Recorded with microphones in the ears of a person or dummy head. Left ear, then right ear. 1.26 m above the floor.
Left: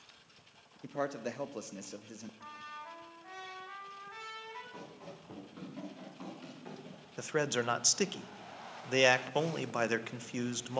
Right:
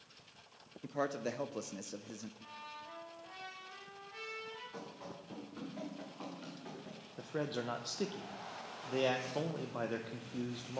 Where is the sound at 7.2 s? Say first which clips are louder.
Left 7 dB; 65° left (ahead or behind), 0.8 m.